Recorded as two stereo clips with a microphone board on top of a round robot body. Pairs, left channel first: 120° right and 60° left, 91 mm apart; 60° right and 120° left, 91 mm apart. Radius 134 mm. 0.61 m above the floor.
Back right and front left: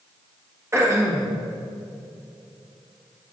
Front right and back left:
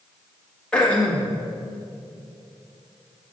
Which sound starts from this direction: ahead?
Throat clearing, at 0.7 s.